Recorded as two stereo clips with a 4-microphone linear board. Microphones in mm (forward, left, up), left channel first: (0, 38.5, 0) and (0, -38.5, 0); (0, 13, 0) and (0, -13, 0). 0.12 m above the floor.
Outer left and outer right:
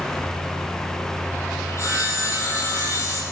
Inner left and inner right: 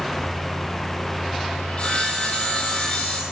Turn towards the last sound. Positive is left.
turn(degrees=40)  # may be behind; listen again after turning